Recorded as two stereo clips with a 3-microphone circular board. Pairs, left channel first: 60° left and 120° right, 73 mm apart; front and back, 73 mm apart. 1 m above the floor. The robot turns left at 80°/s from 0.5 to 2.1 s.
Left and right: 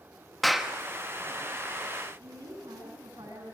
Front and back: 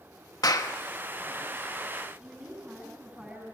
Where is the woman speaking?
105° right, 8 m.